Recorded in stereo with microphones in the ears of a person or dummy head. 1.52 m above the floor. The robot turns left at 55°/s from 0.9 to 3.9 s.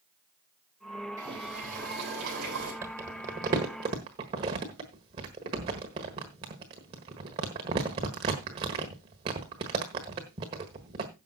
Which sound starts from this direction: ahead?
Boiling, at 1.2 s.